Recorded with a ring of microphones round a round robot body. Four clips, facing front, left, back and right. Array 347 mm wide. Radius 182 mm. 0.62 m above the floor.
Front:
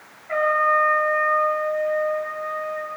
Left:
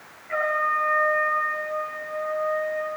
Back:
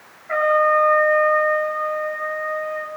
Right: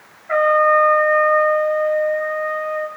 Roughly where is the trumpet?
Right.